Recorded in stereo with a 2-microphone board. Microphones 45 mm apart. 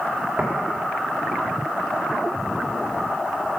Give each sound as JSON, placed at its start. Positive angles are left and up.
{"t": 0.4, "sound": "tapping", "side_deg": -40, "distance_m": 2.5}